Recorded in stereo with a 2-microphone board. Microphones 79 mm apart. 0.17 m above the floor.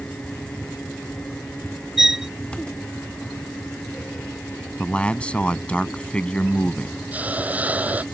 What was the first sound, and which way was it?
A violin, 5° right (ahead or behind).